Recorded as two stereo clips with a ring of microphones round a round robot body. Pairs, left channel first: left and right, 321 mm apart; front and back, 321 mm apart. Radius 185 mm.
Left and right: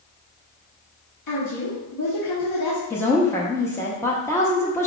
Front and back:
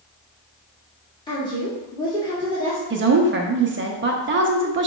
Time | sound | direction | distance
1.3 | a woman speaking | 75° left | 1.8 m
2.9 | a woman speaking | 165° left | 0.6 m